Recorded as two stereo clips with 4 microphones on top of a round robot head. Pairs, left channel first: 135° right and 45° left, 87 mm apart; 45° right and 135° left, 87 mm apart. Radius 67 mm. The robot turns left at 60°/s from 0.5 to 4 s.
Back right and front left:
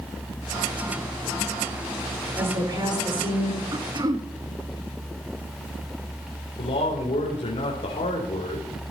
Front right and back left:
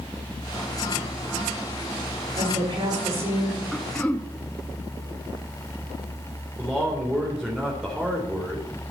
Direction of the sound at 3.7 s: 40° left.